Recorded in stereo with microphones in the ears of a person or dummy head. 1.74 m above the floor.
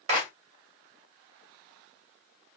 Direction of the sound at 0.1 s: 35° right (ahead or behind).